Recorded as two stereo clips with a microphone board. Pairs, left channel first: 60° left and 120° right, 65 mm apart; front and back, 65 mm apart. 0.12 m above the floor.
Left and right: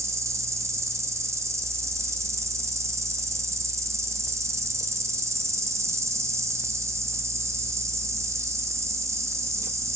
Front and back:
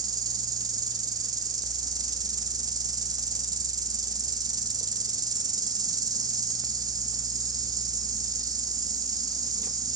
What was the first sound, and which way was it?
An insect, 165° right.